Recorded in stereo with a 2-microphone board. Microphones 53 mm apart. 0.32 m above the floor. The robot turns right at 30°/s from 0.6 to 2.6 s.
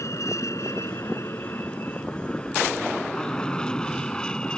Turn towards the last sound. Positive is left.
turn(degrees=15)  # may be behind; listen again after turning